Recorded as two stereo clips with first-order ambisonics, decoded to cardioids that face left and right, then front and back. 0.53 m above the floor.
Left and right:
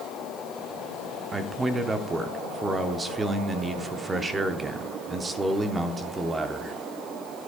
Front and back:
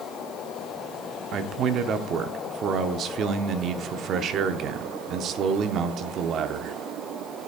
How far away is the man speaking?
About 0.8 m.